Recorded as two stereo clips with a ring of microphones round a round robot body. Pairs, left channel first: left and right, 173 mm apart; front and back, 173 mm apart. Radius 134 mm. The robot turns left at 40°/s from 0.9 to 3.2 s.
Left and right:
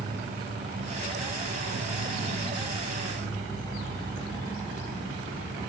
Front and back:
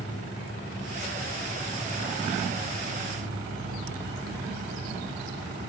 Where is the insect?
60° right, 5 m; by 5.7 s 150° right, 5 m.